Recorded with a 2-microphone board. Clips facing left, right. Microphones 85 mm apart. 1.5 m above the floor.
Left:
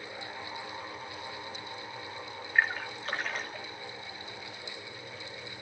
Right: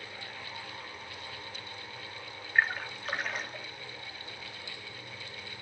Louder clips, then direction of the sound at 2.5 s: Even; centre (ahead or behind).